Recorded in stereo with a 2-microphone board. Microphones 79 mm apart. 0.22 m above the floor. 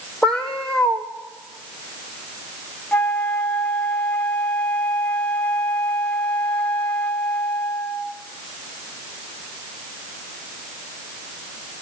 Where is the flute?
20° left (ahead or behind), 0.7 m.